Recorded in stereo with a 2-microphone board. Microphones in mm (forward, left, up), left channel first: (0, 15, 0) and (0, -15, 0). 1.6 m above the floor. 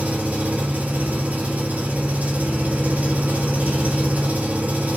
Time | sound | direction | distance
0.0 | an engine running | 70° right (ahead or behind) | 2.5 m